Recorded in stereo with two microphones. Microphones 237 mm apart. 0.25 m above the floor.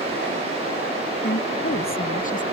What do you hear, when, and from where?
1.2 s a woman speaking: 50° left (ahead or behind); by 2.4 s 30° left (ahead or behind)